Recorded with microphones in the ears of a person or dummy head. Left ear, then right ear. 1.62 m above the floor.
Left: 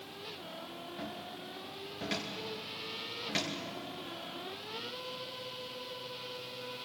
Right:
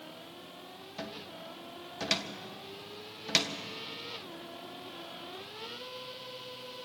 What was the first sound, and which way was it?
A cupboard door, 40° right (ahead or behind).